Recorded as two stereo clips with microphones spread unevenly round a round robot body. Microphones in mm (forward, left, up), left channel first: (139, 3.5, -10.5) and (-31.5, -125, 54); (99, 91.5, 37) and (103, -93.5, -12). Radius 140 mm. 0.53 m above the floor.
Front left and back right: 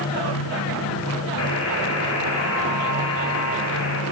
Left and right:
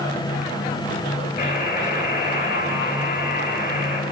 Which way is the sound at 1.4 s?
55° left.